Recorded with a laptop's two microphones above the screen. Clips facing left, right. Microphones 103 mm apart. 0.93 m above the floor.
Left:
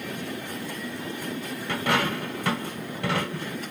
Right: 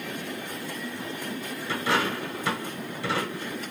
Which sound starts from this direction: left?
A dropped coin, at 1.7 s.